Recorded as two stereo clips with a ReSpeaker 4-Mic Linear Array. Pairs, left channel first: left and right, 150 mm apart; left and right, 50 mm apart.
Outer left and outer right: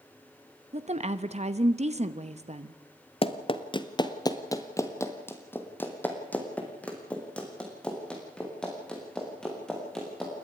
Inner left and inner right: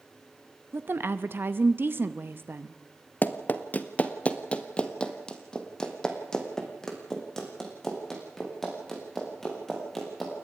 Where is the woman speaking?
45° right (ahead or behind), 0.8 m.